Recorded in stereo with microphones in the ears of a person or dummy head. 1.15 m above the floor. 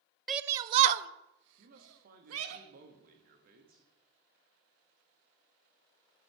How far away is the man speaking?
About 1.5 m.